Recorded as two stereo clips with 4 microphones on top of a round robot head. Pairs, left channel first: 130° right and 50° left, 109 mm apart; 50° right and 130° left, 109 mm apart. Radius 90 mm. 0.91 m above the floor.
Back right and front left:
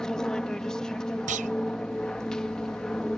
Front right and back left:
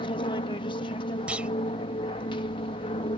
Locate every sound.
0.0 s an aircraft: 45° right
1.3 s a clunk: 50° left